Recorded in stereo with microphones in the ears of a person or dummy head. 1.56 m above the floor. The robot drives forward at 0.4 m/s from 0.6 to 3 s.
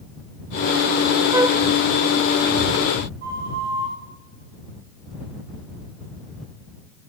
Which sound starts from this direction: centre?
A flute, at 1.3 s.